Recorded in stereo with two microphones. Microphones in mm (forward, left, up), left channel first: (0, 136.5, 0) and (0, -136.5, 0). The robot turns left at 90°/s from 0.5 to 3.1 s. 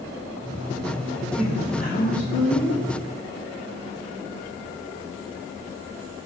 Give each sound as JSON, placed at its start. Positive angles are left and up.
{"t": 1.3, "sound": "a woman speaking", "azimuth_deg": -170, "distance_m": 1.1}